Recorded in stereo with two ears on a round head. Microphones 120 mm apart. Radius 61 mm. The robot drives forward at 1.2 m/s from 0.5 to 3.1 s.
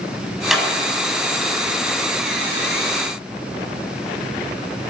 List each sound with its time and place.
0.5 s a clap: 5° right (ahead or behind), 6 m